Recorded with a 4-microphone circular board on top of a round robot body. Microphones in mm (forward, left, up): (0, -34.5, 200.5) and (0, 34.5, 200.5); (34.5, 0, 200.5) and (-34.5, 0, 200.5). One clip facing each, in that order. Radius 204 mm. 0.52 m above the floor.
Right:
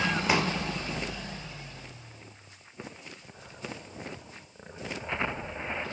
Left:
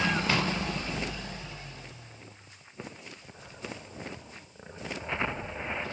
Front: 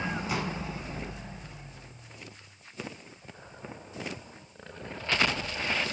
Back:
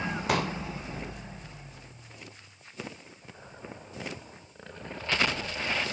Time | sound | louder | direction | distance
0.3 | a pop | right 2 dB, back 8 dB | 165° right | 3 m